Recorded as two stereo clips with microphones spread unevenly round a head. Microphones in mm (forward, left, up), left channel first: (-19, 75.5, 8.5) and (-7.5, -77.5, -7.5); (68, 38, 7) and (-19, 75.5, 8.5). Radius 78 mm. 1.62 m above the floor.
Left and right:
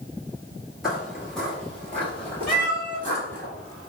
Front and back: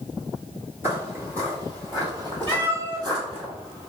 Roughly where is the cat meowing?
Behind.